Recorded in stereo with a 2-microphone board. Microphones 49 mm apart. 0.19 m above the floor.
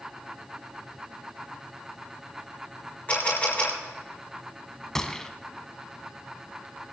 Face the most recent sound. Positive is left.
turn(degrees=10)  # may be behind; listen again after turning